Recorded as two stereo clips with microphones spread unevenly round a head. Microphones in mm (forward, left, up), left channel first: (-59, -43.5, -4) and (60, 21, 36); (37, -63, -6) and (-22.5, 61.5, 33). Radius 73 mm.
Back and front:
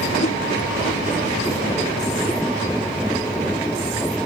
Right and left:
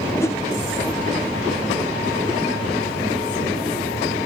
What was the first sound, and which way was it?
A whoosh, 130° right.